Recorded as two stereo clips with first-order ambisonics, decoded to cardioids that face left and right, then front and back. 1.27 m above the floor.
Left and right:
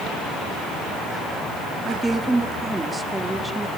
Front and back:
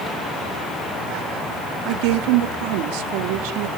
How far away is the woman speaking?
About 2 m.